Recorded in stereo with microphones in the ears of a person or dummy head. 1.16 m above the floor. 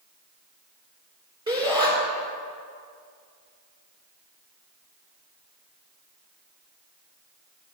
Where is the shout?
20° right (ahead or behind), 5 m.